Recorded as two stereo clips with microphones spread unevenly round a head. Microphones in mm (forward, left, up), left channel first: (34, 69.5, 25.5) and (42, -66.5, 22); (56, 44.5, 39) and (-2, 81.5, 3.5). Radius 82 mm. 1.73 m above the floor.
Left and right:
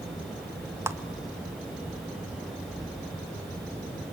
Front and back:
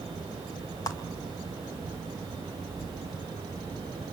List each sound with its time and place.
0.9 s a clap: 15° right, 2 m